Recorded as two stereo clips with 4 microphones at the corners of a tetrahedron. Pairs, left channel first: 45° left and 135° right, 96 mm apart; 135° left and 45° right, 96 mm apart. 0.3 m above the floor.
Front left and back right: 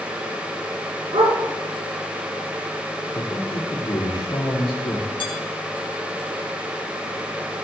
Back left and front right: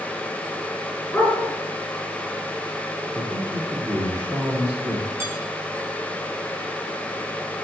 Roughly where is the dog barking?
Behind right.